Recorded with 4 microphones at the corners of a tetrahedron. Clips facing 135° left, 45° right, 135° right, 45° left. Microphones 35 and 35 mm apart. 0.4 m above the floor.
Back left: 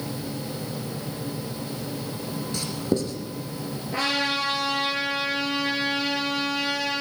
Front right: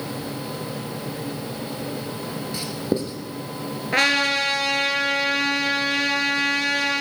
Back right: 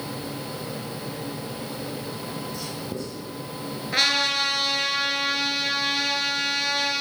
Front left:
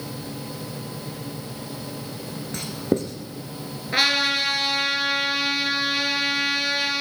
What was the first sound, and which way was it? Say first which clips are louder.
Writing: even, front left 7 dB; 25° left.